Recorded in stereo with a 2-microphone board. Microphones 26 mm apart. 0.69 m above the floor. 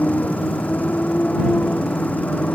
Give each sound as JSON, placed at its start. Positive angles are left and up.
{"t": 0.0, "sound": "a motorcycle", "side_deg": 80}